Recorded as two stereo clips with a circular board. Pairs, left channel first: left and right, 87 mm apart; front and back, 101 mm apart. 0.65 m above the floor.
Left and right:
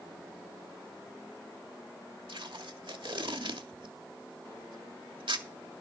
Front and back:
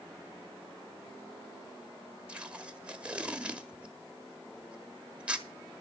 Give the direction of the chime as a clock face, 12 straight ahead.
No chime in this recording.